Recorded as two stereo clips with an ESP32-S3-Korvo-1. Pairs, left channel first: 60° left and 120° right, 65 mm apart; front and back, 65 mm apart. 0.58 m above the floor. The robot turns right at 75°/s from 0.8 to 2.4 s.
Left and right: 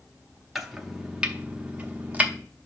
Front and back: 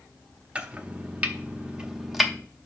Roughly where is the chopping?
Behind.